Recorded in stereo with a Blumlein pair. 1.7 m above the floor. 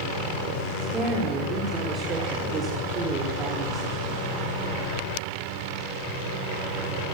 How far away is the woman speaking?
About 5.5 m.